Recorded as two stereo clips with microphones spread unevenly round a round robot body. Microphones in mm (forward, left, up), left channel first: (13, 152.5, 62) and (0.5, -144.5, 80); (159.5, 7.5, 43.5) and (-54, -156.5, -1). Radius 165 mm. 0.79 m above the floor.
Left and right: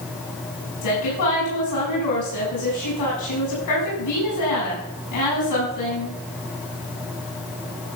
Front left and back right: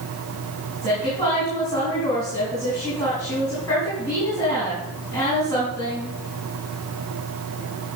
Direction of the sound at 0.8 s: 115° left.